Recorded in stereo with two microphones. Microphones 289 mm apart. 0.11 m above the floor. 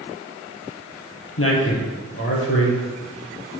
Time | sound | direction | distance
1.4 | a man speaking | 50° left (ahead or behind) | 2.0 m